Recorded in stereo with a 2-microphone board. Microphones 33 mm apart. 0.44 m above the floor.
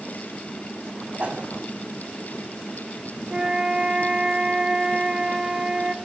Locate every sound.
1.2 s a whoosh: 55° right (ahead or behind), 3 m
3.3 s a flute: 25° right (ahead or behind), 1.0 m